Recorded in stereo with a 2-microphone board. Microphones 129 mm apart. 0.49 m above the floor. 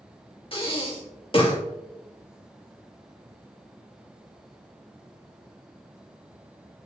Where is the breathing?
45° left (ahead or behind), 1.9 m.